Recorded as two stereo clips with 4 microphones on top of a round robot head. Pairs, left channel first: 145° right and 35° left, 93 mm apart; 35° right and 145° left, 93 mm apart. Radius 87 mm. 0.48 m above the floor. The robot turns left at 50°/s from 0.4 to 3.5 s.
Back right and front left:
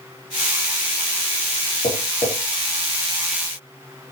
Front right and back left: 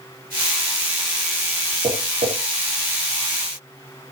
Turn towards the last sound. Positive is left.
turn(degrees=90)